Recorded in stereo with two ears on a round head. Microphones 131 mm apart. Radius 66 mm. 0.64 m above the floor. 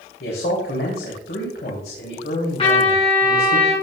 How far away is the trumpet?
About 5.5 m.